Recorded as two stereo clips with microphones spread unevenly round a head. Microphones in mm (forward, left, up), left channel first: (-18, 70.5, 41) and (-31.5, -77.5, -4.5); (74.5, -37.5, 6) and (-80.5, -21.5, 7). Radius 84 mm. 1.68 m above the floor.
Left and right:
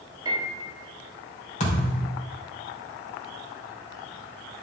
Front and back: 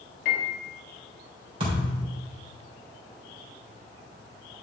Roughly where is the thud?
Behind left.